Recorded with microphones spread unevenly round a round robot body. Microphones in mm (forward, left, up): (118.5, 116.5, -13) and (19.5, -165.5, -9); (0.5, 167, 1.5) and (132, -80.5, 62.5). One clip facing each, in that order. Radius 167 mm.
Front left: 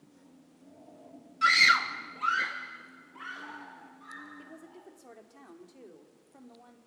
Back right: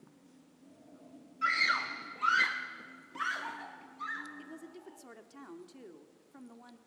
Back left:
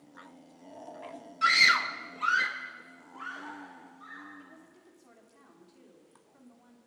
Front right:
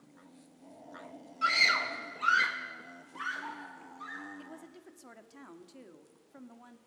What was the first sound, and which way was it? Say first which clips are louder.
A scream: front left 6 dB, back left 1 dB; 80° left.